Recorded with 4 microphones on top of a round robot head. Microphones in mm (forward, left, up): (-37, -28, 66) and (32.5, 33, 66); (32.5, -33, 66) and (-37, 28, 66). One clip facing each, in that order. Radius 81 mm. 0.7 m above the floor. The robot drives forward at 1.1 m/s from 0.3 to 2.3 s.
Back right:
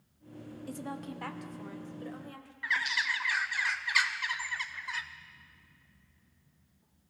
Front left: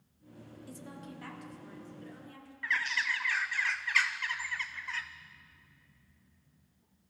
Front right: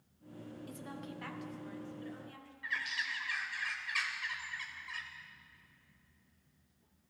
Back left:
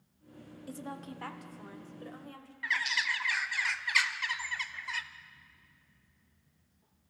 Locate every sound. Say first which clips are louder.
0.7 s a woman speaking: back right 8 dB, back left 7 dB; 165° right, 1.2 m; by 2.5 s 175° right, 3 m
2.6 s a bird: back right 1 dB, back left 6 dB; 145° left, 0.5 m